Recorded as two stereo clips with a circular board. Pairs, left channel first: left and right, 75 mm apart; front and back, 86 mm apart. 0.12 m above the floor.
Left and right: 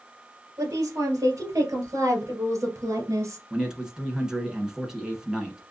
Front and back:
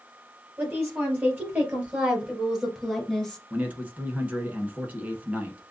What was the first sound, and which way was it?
A woman speaking, 125° right.